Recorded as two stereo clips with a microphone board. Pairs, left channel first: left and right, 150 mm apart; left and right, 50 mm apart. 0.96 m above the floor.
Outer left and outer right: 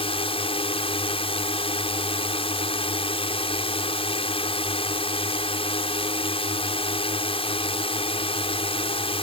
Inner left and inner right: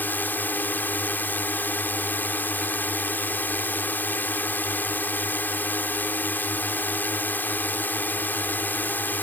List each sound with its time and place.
0.0 s a drone: 40° left (ahead or behind)